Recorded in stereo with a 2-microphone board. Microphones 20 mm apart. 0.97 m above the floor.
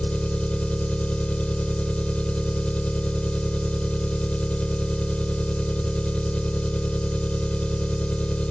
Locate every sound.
0.0 s an engine running: 70° left (ahead or behind)